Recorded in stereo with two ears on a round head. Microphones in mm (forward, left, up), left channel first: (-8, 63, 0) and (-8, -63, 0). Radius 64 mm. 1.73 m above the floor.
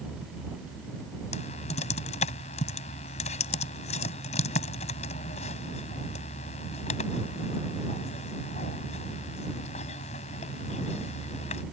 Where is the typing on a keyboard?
50° left (ahead or behind).